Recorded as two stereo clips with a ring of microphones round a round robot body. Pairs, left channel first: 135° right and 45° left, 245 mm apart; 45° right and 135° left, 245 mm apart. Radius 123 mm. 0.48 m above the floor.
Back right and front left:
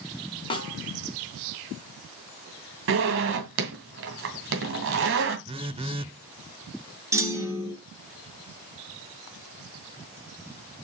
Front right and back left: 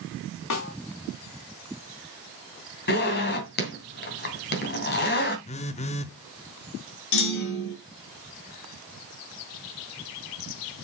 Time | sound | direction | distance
0.5 | a snare drum | 65° right | 3 m
2.9 | a zipper | 5° left | 2.5 m
5.5 | a phone buzzing | 5° right | 0.6 m
7.1 | a clunk | 35° right | 3 m